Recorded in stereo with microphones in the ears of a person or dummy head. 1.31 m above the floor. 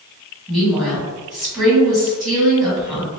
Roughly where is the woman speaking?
Centre.